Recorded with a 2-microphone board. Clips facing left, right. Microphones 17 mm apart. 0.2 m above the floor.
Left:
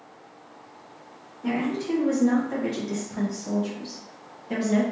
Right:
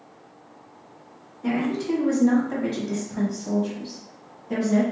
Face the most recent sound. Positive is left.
turn(degrees=25)  # may be behind; listen again after turning